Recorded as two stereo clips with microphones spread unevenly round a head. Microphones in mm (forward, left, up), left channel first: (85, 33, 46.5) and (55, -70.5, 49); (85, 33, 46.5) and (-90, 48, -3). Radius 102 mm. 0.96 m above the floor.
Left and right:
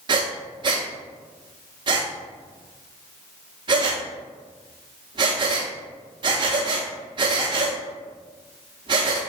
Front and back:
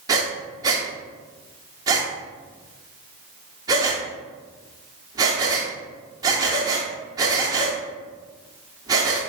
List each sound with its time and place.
0.1 s breathing: 100° right, 0.5 m